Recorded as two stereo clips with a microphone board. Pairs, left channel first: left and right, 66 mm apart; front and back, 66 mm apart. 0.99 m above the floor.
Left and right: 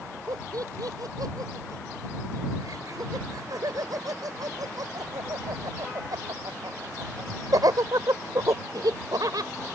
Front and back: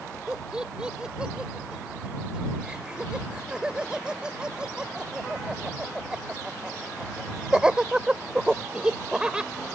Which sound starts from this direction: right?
Laughter, at 0.3 s.